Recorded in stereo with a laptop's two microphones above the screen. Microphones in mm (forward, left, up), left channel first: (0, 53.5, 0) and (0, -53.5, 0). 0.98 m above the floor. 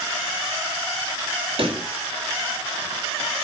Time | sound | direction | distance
1.6 | a pop | 55° right (ahead or behind) | 1.5 m